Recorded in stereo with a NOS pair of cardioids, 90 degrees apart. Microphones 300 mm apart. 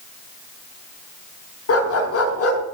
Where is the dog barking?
55° left, 4.5 m.